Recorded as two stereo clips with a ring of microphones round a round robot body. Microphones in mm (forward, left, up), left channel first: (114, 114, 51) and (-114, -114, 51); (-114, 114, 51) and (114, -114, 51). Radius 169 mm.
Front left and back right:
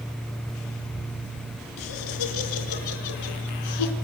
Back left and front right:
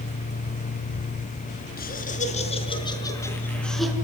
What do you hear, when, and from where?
1.8 s laughter: 70° left, 5.5 m; by 3.9 s 45° left, 5 m